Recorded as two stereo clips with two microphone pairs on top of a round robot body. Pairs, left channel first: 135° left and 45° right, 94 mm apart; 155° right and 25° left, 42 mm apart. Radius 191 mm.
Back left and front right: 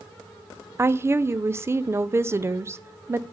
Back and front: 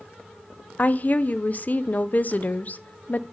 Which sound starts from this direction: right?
A woman speaking, at 0.8 s.